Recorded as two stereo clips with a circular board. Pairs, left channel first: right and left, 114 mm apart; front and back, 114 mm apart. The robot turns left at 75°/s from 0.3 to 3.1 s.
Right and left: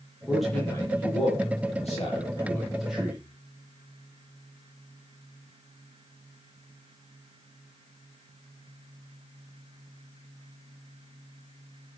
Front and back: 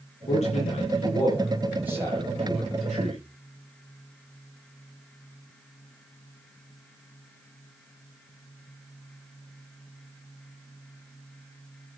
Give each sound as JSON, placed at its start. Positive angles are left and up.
{"t": 0.3, "sound": "a man speaking", "azimuth_deg": 10, "distance_m": 9.0}